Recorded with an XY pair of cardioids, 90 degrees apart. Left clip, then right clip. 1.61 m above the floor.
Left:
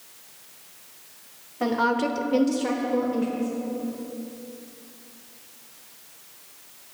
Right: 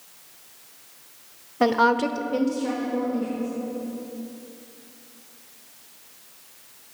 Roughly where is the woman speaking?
Ahead right.